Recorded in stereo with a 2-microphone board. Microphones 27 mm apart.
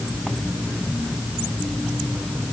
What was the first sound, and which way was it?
Only background noise.